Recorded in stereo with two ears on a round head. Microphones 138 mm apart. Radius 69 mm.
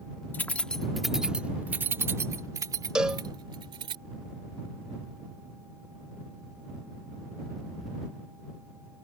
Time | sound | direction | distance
0.3 | keys jangling | 10° left (ahead or behind) | ?
3.0 | a cowbell | 5° right (ahead or behind) | ?